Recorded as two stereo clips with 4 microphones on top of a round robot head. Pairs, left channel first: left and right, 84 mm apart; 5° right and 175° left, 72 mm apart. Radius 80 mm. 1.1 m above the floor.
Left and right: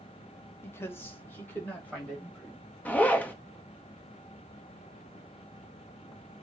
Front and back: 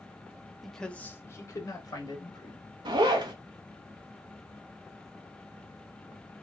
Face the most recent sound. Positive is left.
turn(degrees=160)